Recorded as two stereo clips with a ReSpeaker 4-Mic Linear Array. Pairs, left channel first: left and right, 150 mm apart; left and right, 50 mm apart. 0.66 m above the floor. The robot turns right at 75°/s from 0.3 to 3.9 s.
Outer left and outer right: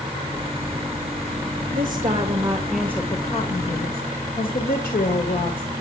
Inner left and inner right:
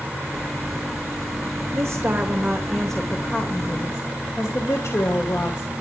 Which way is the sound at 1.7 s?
80° right.